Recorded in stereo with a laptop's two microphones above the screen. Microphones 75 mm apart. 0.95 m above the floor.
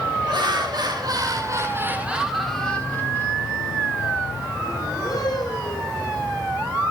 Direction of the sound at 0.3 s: 70° right (ahead or behind).